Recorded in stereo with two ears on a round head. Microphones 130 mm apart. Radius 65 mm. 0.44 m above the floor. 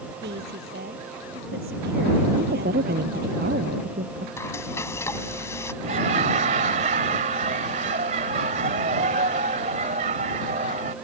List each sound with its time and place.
0.2 s a woman speaking: 85° right; by 3.4 s 70° right (ahead or behind)
2.4 s a woman speaking: 70° right (ahead or behind)
4.4 s frying: 20° left (ahead or behind)
5.8 s laughter: 50° right (ahead or behind)